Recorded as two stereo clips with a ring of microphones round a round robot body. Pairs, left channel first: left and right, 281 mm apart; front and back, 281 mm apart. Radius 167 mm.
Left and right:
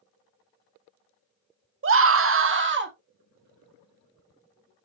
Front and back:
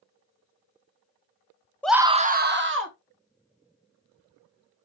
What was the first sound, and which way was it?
A scream, 85° right.